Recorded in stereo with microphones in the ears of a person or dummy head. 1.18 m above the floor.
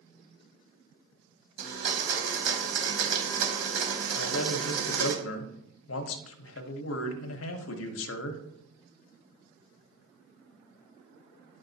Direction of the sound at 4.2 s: 85° left.